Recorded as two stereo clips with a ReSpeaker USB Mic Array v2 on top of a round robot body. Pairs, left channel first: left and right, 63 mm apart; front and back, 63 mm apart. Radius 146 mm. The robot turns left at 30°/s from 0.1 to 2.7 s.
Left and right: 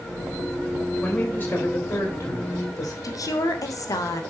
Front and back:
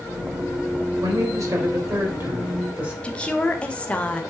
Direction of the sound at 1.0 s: 165° left.